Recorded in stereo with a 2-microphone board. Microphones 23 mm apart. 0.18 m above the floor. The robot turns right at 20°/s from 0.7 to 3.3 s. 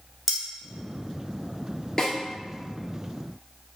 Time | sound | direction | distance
0.3 | cutlery clinking | 15° right (ahead or behind) | 1.3 m
2.0 | a snare drum | 15° left (ahead or behind) | 1.4 m